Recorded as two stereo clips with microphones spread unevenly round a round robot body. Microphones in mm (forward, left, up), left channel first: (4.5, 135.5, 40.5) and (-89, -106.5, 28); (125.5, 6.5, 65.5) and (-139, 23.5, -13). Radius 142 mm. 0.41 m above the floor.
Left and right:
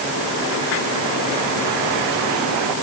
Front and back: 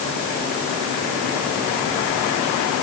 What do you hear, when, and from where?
Only background noise.